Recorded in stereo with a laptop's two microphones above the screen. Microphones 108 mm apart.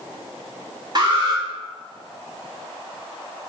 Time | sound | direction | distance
0.9 | an alarm | 40° right (ahead or behind) | 4.5 m